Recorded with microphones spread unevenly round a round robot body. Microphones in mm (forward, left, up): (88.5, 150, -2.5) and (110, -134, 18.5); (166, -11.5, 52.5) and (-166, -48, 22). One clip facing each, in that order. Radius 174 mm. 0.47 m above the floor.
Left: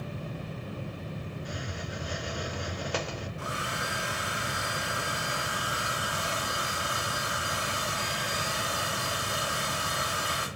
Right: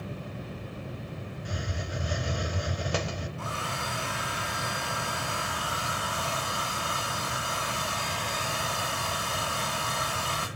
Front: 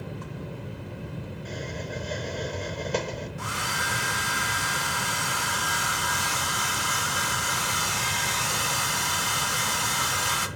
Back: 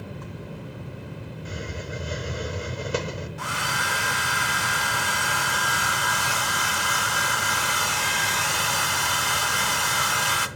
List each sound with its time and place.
1.4 s a hiss: 95° right, 0.6 m
3.4 s a hair dryer: 165° left, 0.7 m